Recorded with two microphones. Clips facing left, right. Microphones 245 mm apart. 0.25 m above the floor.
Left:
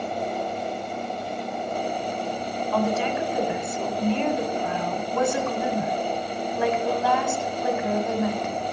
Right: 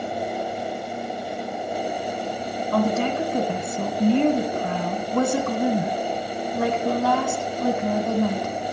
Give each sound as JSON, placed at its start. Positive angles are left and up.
{"t": 2.7, "sound": "a woman speaking", "side_deg": -45, "distance_m": 1.3}